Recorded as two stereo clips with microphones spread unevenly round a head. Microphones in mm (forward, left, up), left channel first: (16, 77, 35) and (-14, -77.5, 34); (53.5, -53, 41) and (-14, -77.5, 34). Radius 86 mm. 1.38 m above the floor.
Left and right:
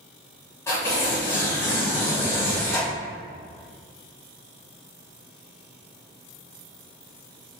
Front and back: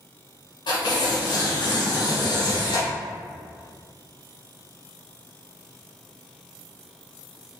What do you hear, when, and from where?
0.7 s tearing paper: 5° left, 1.4 m